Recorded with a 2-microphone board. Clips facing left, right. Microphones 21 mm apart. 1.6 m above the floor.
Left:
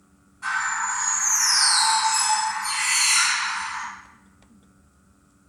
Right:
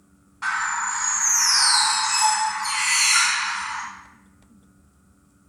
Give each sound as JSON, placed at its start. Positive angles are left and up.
{"t": 0.4, "sound": "a bird", "side_deg": -55, "distance_m": 2.0}